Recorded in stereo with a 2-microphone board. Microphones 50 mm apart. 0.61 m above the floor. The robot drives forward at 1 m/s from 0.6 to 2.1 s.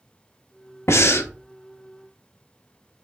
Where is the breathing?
65° left (ahead or behind), 0.5 m; by 1.3 s 50° left (ahead or behind), 0.6 m.